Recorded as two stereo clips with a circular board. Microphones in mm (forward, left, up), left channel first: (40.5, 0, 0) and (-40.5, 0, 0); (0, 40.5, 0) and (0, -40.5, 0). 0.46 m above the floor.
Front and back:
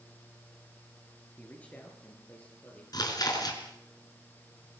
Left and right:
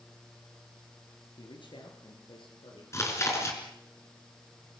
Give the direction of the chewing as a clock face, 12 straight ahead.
11 o'clock.